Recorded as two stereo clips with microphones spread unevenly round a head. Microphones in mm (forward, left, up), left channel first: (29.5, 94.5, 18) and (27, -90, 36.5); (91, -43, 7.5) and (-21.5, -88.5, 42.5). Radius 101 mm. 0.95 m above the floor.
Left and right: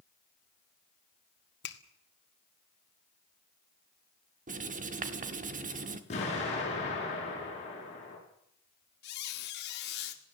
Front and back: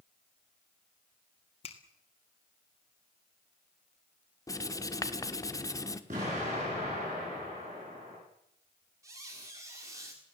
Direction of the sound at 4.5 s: 40° right.